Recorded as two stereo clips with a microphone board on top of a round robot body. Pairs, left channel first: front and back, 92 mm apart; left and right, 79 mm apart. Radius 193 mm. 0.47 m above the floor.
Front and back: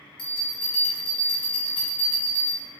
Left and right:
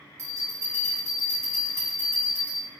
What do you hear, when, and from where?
0.2 s a bell: 30° right, 0.6 m